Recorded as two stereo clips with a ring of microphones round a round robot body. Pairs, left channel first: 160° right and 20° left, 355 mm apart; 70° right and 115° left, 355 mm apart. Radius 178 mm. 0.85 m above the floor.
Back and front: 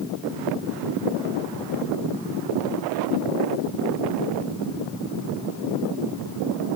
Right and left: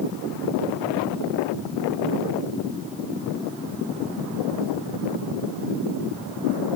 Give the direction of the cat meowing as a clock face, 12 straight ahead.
I don't hear a cat meowing.